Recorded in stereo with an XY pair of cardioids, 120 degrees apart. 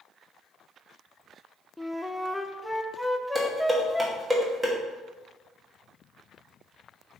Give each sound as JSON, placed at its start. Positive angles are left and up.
{"t": 1.8, "sound": "a flute", "azimuth_deg": 5, "distance_m": 0.7}
{"t": 3.4, "sound": "dishes clattering", "azimuth_deg": -15, "distance_m": 2.0}